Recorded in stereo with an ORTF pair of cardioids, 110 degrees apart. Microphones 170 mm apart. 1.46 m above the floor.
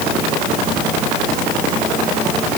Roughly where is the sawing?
I don't hear sawing.